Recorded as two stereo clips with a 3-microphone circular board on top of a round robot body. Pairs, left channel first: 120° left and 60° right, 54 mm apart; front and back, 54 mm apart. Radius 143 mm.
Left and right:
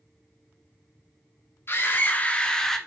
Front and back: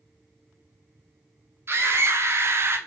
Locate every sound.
1.7 s a scream: 155° left, 1.6 m; by 2.8 s 160° right, 1.4 m